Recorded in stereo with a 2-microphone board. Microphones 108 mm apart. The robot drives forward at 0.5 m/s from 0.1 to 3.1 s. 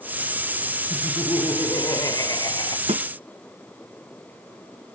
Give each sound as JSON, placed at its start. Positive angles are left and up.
{"t": 0.9, "sound": "laughter", "side_deg": 30}
{"t": 2.9, "sound": "a snare drum", "side_deg": -75}